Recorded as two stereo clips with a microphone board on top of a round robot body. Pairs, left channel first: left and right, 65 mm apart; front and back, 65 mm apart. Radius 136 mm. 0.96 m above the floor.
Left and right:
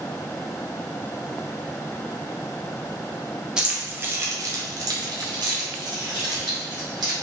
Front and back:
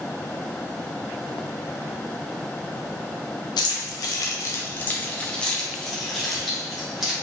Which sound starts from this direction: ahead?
Keys jangling, at 3.6 s.